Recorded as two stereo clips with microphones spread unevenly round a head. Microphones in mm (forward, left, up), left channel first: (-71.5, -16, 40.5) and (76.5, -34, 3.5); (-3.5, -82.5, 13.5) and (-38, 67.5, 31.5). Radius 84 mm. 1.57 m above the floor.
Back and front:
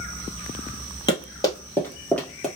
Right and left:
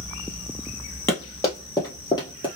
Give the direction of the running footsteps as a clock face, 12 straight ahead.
5 o'clock.